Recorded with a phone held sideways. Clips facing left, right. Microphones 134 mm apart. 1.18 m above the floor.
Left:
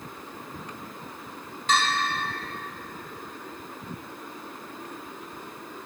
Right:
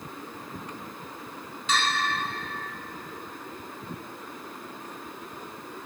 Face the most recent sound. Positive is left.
turn(degrees=55)  # may be behind; listen again after turning